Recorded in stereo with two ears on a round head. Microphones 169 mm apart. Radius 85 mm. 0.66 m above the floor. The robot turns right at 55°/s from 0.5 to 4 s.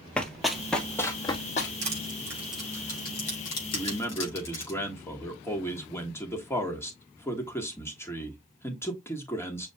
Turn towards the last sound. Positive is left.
turn(degrees=15)  # may be behind; listen again after turning